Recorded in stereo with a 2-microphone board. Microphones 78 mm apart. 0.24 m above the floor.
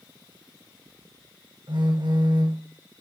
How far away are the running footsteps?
I don't hear running footsteps.